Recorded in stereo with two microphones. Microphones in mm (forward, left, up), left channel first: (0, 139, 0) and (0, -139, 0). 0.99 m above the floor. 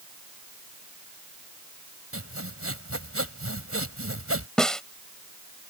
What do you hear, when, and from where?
2.1 s sawing: 55° right (ahead or behind)
4.6 s a snare drum: 5° left (ahead or behind)